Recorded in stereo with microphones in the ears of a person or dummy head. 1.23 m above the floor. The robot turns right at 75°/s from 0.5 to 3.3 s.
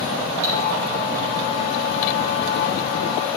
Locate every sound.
0.4 s cutlery clinking: 65° right (ahead or behind), 1.9 m; by 0.6 s 60° right (ahead or behind), 1.9 m